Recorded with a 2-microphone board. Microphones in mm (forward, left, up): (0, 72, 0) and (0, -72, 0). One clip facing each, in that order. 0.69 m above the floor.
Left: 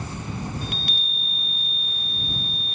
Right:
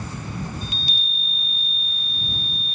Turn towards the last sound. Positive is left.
turn(degrees=60)  # may be behind; listen again after turning